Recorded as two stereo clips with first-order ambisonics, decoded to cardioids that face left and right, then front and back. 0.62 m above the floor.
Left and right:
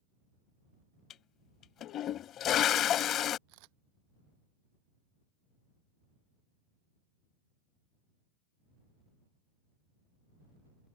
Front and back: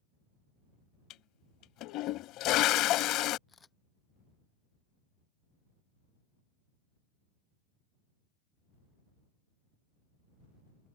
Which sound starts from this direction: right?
A camera shutter, at 3.5 s.